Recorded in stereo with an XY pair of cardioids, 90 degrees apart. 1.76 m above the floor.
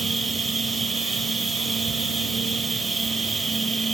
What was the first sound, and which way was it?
A machine running, 40° right.